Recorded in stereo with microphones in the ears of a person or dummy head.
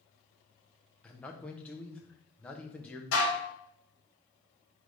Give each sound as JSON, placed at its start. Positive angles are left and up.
{"t": 1.0, "sound": "a man speaking", "side_deg": 5, "distance_m": 0.5}
{"t": 3.1, "sound": "dishes clattering", "side_deg": 65, "distance_m": 1.3}